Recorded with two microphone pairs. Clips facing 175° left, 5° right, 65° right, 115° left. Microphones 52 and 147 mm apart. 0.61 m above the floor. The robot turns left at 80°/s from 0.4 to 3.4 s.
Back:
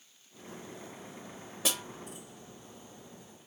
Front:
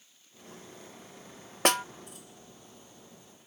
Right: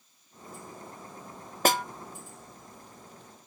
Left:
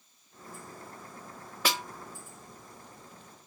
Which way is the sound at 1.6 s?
25° right.